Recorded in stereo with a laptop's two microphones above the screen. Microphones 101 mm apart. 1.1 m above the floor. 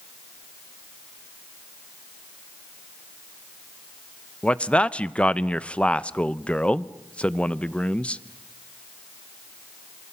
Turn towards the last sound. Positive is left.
turn(degrees=10)  # may be behind; listen again after turning